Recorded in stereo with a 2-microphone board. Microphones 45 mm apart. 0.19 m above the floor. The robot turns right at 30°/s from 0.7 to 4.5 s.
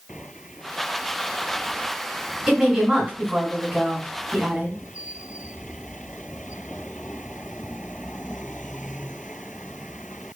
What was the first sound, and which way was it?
A woman speaking, 140° right.